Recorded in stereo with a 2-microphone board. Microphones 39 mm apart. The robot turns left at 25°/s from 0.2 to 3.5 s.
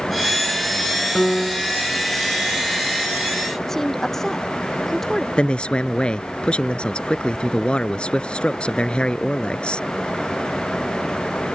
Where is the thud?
No thud in this recording.